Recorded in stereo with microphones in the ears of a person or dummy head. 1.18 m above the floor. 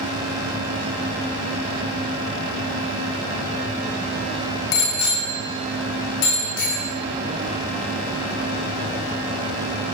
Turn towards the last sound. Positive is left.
turn(degrees=80)